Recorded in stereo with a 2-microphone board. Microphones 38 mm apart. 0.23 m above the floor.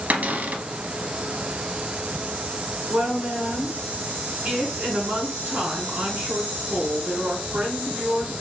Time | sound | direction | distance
0.1 | a cupboard door | 50° right (ahead or behind) | 0.7 m
2.9 | a woman speaking | 45° right (ahead or behind) | 1.9 m